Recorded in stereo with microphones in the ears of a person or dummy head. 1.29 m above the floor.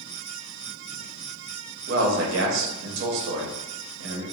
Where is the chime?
I don't hear a chime.